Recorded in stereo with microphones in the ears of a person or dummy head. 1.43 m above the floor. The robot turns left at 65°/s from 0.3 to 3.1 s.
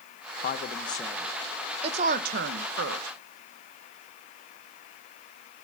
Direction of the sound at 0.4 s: 55° left (ahead or behind).